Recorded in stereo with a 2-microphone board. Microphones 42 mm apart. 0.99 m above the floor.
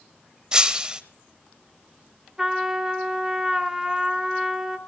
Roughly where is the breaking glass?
Centre.